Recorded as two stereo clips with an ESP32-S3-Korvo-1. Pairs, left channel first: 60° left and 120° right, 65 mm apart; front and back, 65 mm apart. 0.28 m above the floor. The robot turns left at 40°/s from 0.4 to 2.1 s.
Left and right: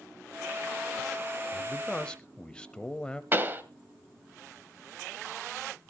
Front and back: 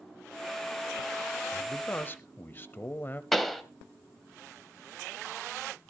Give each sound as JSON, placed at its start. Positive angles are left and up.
{"t": 1.5, "sound": "a man speaking", "azimuth_deg": 20, "distance_m": 1.0}
{"t": 3.3, "sound": "a pop", "azimuth_deg": -85, "distance_m": 1.1}